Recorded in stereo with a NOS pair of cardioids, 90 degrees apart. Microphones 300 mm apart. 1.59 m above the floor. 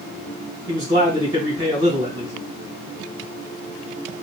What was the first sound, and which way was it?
A man speaking, 15° right.